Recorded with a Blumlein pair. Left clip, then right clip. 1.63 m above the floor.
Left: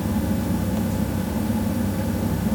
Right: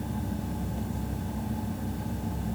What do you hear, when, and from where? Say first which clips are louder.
0.0 s a fan: left 10 dB; 50° left, 0.8 m